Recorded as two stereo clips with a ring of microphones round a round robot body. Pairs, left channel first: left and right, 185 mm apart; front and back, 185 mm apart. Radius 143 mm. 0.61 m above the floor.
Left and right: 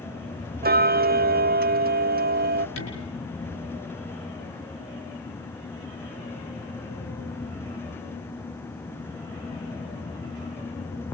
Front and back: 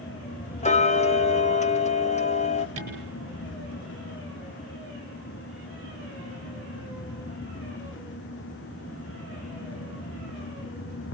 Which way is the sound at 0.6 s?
55° right.